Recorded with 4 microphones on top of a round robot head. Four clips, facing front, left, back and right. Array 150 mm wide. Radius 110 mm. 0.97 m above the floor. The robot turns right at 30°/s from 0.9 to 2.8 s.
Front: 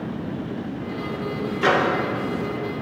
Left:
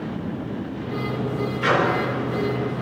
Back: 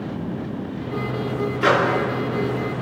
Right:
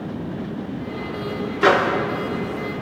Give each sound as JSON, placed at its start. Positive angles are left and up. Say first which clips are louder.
{"t": 1.6, "sound": "a microwave", "louder": "right 4 dB, back 1 dB", "azimuth_deg": -80, "distance_m": 2.5}